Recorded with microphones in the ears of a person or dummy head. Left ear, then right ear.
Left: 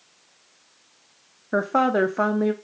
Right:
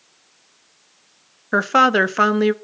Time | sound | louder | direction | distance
1.5 | a woman speaking | right 6 dB | 40° right (ahead or behind) | 0.7 m